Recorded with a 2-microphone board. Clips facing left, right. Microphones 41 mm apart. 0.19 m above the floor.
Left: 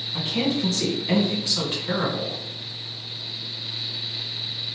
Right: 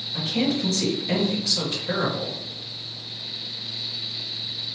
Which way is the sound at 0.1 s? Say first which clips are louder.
Even; 30° left (ahead or behind).